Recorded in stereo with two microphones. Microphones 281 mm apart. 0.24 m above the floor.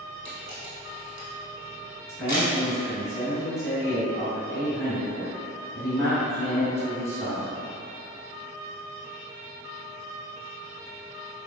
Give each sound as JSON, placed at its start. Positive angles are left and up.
{"t": 0.2, "sound": "a camera shutter", "side_deg": 75, "distance_m": 1.8}
{"t": 2.1, "sound": "a man speaking", "side_deg": 10, "distance_m": 1.8}